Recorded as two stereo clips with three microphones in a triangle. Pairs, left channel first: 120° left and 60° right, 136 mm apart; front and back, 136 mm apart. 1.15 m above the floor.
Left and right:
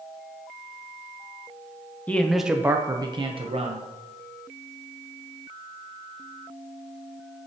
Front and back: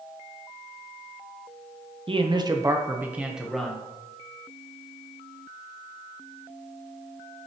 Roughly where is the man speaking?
Behind.